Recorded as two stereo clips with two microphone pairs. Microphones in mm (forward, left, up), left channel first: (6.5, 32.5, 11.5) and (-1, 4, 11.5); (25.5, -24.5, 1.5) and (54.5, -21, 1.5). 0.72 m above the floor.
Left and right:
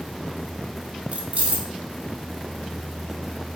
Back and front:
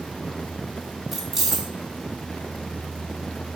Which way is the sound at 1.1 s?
70° right.